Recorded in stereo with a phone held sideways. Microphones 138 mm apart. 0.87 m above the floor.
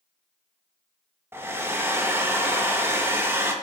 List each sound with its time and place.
1.3 s a hair dryer: 15° right (ahead or behind), 1.0 m